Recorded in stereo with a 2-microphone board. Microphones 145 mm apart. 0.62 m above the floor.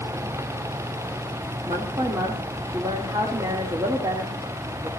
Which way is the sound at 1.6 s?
30° right (ahead or behind).